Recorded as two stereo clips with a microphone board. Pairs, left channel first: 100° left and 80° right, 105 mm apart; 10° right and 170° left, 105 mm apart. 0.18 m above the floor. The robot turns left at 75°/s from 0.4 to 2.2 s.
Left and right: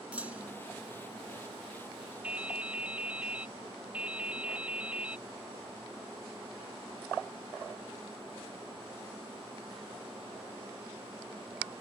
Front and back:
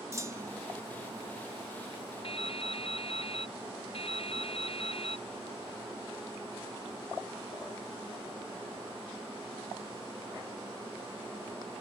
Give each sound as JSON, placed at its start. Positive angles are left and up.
{"t": 0.1, "sound": "a clunk", "azimuth_deg": -145}
{"t": 2.2, "sound": "dripping", "azimuth_deg": 0}